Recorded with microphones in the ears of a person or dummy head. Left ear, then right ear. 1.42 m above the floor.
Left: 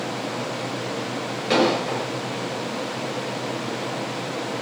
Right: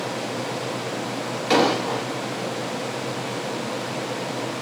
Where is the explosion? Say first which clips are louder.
Right 1 dB; 10° right (ahead or behind), 1.0 m.